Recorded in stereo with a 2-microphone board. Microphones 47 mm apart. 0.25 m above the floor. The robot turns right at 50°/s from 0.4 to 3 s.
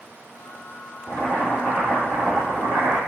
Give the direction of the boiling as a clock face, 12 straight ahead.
8 o'clock.